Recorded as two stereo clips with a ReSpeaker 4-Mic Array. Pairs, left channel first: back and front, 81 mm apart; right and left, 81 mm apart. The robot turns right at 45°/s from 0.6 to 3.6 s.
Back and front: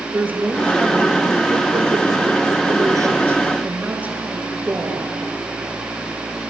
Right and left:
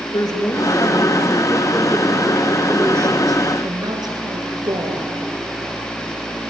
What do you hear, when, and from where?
0.1 s a woman speaking: 65° right, 3.5 m; by 5.1 s 70° left, 3.5 m